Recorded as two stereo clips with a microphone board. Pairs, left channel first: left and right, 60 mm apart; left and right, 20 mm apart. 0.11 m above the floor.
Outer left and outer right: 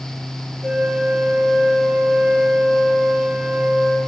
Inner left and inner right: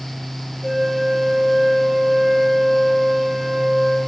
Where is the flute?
15° right (ahead or behind), 3 m.